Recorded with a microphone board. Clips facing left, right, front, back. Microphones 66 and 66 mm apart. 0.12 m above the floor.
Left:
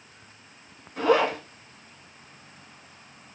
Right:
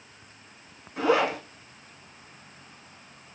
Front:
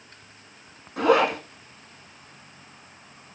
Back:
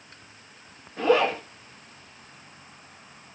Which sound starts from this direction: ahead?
A zipper, at 1.0 s.